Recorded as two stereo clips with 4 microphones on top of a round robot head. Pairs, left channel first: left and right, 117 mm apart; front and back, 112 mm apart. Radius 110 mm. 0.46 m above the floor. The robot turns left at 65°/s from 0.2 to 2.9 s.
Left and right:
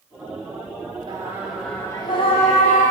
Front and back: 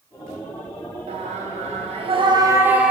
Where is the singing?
145° right, 3.5 m; by 2.9 s 95° left, 3.5 m.